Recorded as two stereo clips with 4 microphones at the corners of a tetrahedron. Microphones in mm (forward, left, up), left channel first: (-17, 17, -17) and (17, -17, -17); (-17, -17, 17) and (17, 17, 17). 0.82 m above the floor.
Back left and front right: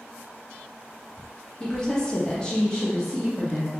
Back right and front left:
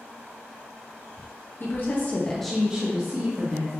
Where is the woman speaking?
155° right, 1.0 m; by 3.7 s 55° left, 1.2 m.